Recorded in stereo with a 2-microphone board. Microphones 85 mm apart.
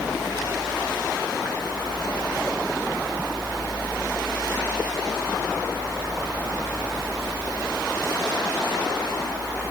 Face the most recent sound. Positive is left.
No sound to turn to.